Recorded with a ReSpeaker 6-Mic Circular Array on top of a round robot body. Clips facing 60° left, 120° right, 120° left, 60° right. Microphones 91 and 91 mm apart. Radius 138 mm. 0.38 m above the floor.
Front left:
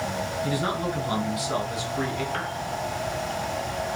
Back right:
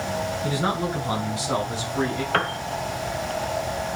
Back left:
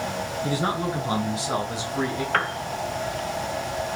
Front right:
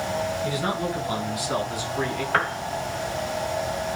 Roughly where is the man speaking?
Behind.